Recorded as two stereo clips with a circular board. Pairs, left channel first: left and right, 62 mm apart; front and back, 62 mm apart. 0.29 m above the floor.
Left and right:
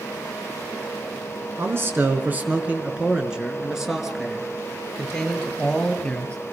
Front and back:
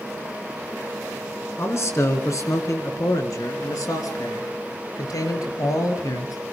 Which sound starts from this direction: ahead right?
A man speaking, at 1.6 s.